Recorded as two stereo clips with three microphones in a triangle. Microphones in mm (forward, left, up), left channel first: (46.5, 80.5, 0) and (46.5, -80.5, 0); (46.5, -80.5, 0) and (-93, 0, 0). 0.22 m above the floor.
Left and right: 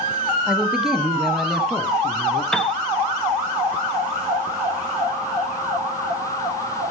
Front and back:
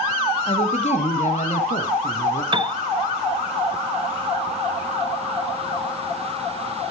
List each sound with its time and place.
0.5 s a man speaking: 5° right, 1.4 m; by 2.4 s straight ahead, 2.5 m
2.5 s a piano: 175° left, 0.6 m